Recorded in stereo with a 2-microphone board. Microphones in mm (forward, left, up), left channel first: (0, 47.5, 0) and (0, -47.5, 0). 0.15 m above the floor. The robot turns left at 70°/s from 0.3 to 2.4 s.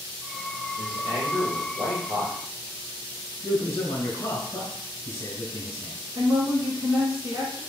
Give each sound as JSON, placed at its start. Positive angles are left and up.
{"t": 0.8, "sound": "a man speaking", "azimuth_deg": -45, "distance_m": 2.5}
{"t": 3.4, "sound": "a man speaking", "side_deg": 35, "distance_m": 1.8}
{"t": 6.2, "sound": "a woman speaking", "side_deg": -30, "distance_m": 1.5}